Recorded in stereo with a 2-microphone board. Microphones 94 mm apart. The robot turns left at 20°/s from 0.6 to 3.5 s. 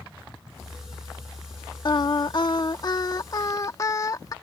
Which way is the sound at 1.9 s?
85° left.